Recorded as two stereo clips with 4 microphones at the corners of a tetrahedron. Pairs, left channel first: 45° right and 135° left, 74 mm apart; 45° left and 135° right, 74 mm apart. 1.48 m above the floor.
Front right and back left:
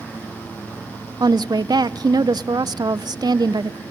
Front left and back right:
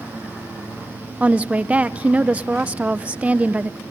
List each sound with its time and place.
1.2 s a woman speaking: 155° left, 0.6 m